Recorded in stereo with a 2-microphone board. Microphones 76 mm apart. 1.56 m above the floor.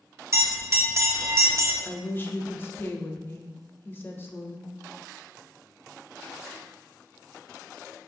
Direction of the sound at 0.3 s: 40° right (ahead or behind).